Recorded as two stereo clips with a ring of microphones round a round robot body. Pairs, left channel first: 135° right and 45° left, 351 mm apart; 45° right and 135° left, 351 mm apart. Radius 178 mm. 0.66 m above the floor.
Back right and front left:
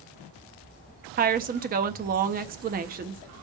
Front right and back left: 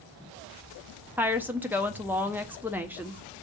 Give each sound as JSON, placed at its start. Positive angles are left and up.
{"t": 1.2, "sound": "a woman speaking", "azimuth_deg": 55, "distance_m": 0.6}